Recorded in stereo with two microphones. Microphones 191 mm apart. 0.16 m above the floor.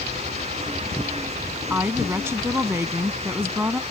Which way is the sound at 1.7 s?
15° right (ahead or behind).